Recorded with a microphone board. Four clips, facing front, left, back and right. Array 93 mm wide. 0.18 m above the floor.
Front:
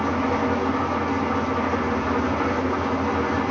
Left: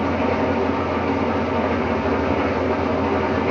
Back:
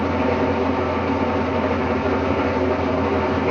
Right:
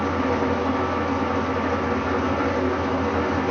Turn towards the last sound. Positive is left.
turn(degrees=135)